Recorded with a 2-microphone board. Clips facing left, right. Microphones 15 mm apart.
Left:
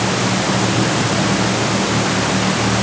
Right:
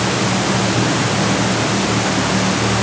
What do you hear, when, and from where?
Only background noise.